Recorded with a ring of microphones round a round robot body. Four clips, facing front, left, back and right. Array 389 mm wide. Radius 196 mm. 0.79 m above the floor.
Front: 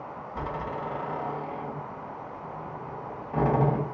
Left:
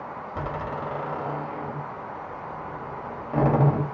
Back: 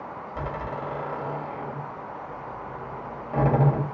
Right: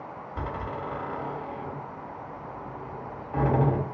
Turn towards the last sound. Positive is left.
turn(degrees=125)